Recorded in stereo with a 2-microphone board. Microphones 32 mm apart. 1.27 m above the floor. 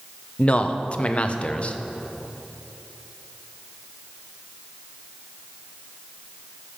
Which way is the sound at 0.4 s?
40° left (ahead or behind).